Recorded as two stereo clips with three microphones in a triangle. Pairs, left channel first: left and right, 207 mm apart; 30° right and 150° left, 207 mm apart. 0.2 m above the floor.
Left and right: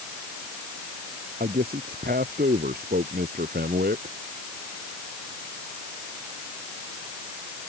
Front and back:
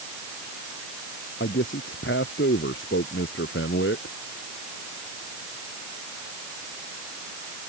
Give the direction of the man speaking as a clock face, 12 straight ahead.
2 o'clock.